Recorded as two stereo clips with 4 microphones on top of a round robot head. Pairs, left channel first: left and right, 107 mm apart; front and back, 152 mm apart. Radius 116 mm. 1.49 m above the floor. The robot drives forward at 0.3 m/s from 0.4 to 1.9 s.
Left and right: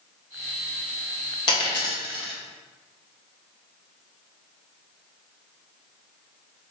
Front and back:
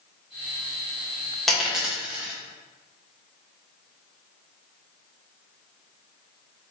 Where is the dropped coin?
85° left, 0.8 m; by 2.3 s 105° left, 0.8 m.